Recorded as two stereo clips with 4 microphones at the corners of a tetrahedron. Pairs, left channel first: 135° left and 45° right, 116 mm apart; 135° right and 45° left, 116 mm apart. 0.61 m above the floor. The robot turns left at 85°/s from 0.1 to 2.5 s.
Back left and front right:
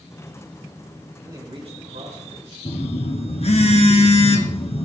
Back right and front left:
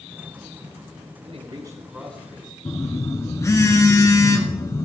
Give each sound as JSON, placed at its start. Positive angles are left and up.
{"t": 1.2, "sound": "a man speaking", "azimuth_deg": 25, "distance_m": 5.5}
{"t": 2.6, "sound": "a phone buzzing", "azimuth_deg": 165, "distance_m": 1.9}